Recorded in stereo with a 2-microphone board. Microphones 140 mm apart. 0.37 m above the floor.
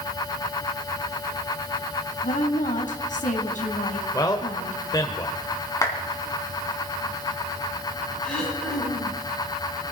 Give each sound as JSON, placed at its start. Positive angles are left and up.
{"t": 2.2, "sound": "a woman speaking", "side_deg": 70, "distance_m": 2.5}
{"t": 4.1, "sound": "a man speaking", "side_deg": 25, "distance_m": 1.3}
{"t": 5.8, "sound": "a clap", "side_deg": 25, "distance_m": 3.0}
{"t": 8.2, "sound": "throat clearing", "side_deg": 5, "distance_m": 8.5}